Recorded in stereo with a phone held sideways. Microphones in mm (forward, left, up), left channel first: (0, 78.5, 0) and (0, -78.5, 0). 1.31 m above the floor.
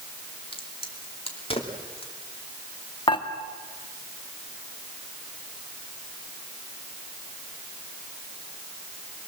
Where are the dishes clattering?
30° left (ahead or behind), 1.9 m.